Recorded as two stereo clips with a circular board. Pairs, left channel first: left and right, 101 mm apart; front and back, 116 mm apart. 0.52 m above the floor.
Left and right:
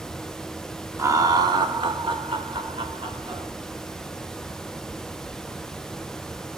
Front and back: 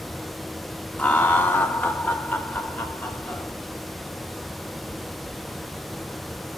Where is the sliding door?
No sliding door in this recording.